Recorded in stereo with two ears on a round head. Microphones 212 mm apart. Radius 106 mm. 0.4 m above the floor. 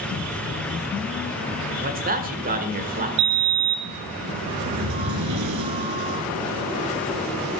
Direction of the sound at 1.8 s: 35° right (ahead or behind).